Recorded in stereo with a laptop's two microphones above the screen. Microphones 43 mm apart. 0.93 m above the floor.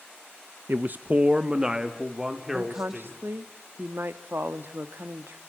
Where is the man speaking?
50° right (ahead or behind), 0.5 m; by 3.2 s 10° right (ahead or behind), 3 m.